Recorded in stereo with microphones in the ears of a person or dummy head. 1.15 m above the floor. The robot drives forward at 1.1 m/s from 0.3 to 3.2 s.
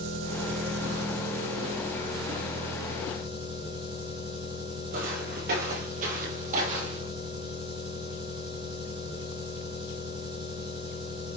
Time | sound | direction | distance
0.0 | an engine running | 80° right | 2 m
4.9 | footsteps | 40° right (ahead or behind) | 1.8 m